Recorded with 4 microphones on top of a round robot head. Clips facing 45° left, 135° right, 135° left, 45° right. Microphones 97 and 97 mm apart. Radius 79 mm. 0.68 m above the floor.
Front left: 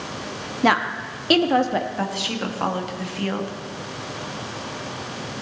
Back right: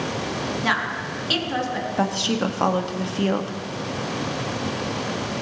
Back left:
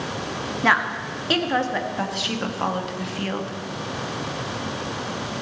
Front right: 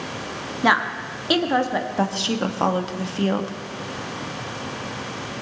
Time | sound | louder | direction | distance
0.6 | a woman speaking | front left 9 dB, front right 1 dB | 30° left | 1.0 m
2.0 | a woman speaking | back right 4 dB, front right 4 dB | 90° right | 1.3 m